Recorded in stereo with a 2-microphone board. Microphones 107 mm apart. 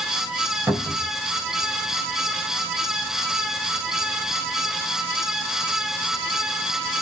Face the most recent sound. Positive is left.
turn(degrees=-10)  # may be behind; listen again after turning